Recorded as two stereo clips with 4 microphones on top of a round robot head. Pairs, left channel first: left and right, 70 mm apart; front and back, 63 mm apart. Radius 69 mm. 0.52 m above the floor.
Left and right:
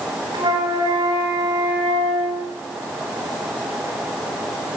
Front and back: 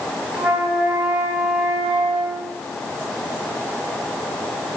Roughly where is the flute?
Right.